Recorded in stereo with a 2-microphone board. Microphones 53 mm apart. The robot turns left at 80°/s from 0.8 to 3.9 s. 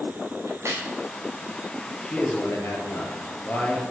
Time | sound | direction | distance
0.5 | a crack | 55° right (ahead or behind) | 5.5 m
2.0 | a man speaking | 165° left | 3 m